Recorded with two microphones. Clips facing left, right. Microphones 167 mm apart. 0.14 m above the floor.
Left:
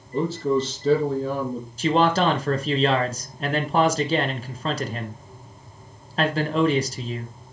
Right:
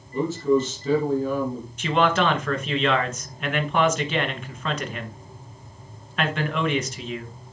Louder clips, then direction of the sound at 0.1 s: Right 1 dB; 35° left (ahead or behind).